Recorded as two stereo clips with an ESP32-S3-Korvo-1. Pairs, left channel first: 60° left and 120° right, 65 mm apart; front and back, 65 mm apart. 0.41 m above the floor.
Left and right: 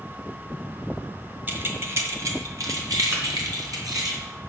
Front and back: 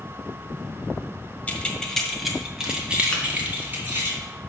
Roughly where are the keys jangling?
Ahead right.